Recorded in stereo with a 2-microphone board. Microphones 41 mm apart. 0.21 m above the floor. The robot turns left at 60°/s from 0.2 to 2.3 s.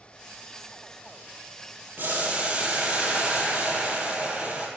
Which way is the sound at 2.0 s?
55° right (ahead or behind).